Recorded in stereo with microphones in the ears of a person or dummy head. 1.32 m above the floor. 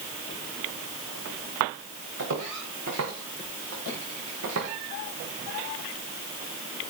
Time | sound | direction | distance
2.2 | footsteps | 75° right (ahead or behind) | 5 m